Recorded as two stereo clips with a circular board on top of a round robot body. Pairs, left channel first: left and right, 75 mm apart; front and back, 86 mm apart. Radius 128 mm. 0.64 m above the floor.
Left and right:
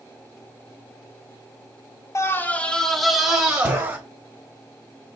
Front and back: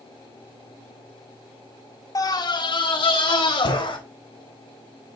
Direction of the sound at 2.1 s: 45° left.